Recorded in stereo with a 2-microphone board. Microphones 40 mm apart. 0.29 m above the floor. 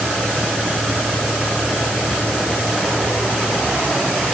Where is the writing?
No writing in this recording.